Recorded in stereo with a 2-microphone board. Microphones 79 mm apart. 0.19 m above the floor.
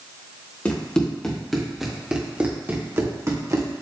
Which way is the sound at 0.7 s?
15° left (ahead or behind).